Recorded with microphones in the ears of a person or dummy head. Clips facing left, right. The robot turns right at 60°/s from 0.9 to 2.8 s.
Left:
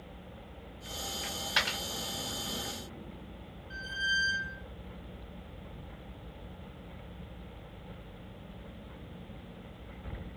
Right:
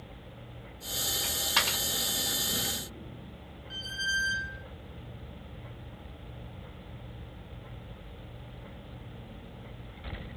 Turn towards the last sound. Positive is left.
turn(degrees=-60)  # may be behind; listen again after turning